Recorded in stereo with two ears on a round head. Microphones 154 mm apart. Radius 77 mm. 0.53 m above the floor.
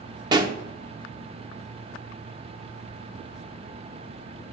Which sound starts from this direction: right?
A pop, at 0.3 s.